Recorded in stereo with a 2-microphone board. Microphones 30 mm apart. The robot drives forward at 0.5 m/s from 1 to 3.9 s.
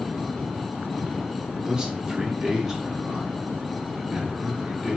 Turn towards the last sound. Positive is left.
turn(degrees=-10)  # may be behind; listen again after turning